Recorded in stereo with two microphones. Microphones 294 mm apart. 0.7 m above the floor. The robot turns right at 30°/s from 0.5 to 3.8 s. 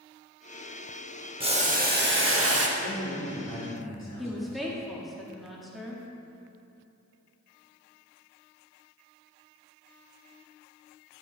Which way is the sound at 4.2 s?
Centre (ahead or behind).